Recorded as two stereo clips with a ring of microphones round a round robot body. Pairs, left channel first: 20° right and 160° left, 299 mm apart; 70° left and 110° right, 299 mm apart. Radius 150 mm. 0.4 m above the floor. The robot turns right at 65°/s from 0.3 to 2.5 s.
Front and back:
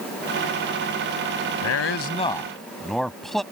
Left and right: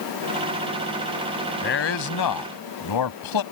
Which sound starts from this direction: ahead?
A man speaking, at 1.6 s.